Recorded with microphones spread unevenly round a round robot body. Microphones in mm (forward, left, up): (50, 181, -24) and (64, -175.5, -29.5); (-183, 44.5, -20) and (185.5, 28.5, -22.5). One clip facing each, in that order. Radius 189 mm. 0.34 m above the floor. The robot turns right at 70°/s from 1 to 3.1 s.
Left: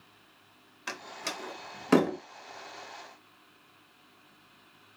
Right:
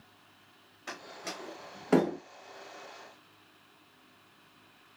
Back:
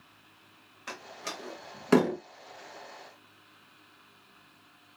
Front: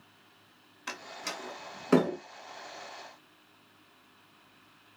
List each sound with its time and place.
0.9 s a door slam: 50° left, 0.6 m; by 2.2 s 135° left, 0.6 m